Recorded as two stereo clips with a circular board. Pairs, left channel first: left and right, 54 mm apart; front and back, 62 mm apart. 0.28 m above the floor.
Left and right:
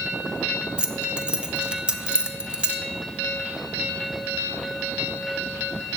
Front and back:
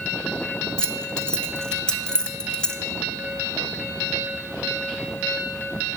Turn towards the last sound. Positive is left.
turn(degrees=-55)